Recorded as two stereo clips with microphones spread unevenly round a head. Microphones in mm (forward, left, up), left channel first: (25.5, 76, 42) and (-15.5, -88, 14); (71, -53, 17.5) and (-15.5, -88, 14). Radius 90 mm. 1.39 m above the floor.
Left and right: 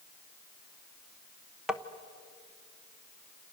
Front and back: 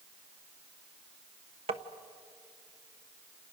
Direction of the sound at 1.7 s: 170° left.